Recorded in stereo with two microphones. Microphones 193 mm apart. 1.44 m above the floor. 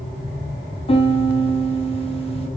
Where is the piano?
30° left (ahead or behind), 0.9 m.